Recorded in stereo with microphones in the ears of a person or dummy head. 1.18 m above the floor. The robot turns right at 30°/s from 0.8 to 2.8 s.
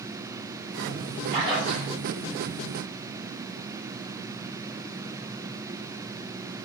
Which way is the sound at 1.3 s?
20° right (ahead or behind).